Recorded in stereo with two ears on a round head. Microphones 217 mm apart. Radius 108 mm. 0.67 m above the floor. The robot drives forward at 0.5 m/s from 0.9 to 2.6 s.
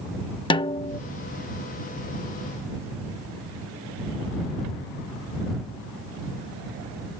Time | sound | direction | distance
0.5 | a snare drum | 20° left (ahead or behind) | ?